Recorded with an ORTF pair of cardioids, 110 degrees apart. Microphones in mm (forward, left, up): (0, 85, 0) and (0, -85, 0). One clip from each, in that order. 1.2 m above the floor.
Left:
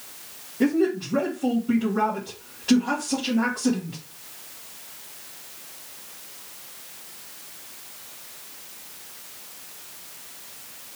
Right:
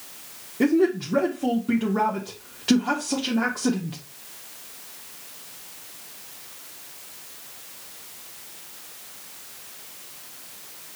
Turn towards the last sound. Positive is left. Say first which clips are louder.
# right 2 dB
turn(degrees=-30)